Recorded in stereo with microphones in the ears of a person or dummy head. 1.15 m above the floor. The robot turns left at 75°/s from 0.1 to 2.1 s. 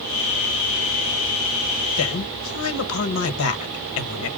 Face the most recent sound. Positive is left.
turn(degrees=75)  # may be behind; listen again after turning